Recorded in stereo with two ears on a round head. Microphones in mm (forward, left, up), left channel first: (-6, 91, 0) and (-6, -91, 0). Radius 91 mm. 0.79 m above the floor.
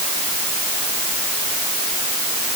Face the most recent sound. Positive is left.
No sound to turn to.